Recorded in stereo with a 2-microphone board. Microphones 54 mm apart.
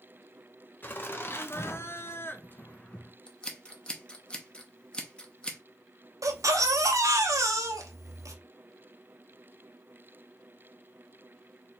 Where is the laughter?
40° left (ahead or behind), 1.0 m; by 3.1 s 20° left (ahead or behind), 0.8 m.